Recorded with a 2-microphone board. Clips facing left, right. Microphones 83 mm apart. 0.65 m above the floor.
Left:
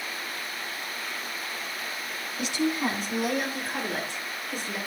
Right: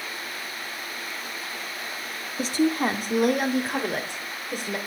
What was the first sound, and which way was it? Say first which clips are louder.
A woman speaking: right 4 dB; 40° right (ahead or behind).